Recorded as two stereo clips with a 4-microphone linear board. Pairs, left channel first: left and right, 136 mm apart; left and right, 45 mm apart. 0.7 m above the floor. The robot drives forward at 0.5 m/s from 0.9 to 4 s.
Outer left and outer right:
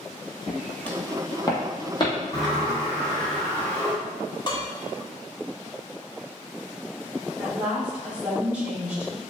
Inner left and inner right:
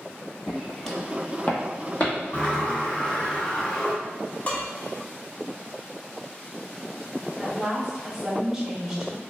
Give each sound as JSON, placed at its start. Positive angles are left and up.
{"t": 0.5, "sound": "footsteps", "side_deg": -5, "distance_m": 0.9}
{"t": 2.3, "sound": "a sliding door", "side_deg": 30, "distance_m": 1.7}
{"t": 4.5, "sound": "dishes clattering", "side_deg": 35, "distance_m": 0.6}
{"t": 7.4, "sound": "a woman speaking", "side_deg": -10, "distance_m": 1.4}